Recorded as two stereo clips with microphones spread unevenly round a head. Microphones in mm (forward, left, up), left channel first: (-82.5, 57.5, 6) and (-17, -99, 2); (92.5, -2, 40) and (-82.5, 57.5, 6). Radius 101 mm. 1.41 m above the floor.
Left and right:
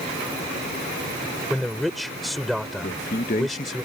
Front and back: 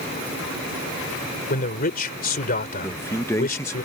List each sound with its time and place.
1.5 s a man speaking: 25° left
2.8 s a man speaking: 60° left